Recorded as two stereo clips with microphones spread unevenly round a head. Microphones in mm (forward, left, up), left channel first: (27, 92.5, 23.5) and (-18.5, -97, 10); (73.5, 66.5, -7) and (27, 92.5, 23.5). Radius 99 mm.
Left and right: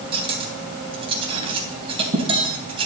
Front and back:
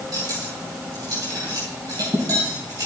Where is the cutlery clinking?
170° right, 3 m.